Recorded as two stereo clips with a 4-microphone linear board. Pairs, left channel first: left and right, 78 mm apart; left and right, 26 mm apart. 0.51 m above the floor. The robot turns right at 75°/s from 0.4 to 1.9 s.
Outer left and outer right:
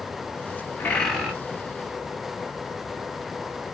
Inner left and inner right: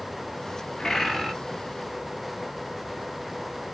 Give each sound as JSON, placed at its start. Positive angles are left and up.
{"t": 0.8, "sound": "a bird", "azimuth_deg": 155, "distance_m": 1.4}